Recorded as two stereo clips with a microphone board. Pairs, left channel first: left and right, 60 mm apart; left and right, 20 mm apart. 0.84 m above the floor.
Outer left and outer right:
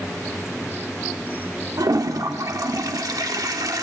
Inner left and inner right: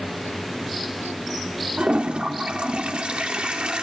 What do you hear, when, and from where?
1.8 s a toilet flushing: 85° right, 1.2 m